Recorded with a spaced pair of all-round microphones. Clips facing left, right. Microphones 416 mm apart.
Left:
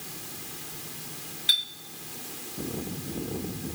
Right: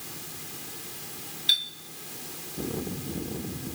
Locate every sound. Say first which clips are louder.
1.5 s a clink: even; 60° left (ahead or behind), 1.2 m